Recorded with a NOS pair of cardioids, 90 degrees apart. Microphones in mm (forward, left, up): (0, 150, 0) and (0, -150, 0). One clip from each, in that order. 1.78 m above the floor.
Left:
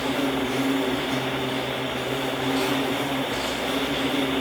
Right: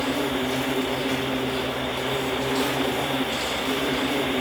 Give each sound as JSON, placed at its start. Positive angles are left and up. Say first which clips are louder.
{"t": 0.0, "sound": "an insect", "louder": "even", "azimuth_deg": -60, "distance_m": 4.0}